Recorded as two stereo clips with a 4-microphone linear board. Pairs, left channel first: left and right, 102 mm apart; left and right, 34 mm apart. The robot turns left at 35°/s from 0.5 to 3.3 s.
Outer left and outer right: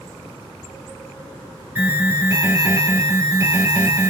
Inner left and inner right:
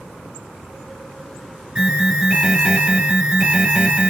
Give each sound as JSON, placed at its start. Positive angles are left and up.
{"t": 1.8, "sound": "an alarm", "azimuth_deg": -30, "distance_m": 2.0}